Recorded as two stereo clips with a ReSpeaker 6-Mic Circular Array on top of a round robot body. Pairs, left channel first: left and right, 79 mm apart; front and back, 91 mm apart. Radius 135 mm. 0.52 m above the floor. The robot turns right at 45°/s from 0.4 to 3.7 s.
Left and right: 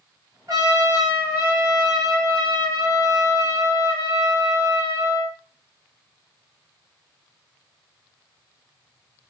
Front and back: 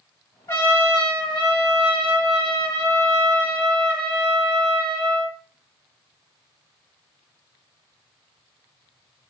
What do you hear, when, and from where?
0.5 s a trumpet: 60° right, 1.5 m; by 5.4 s 85° left, 1.5 m